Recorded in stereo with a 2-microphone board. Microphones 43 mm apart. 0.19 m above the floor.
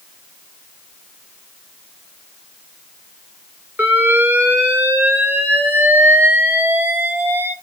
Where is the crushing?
No crushing in this recording.